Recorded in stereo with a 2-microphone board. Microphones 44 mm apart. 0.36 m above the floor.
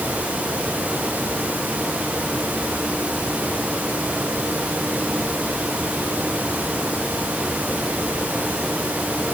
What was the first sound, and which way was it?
Only background noise.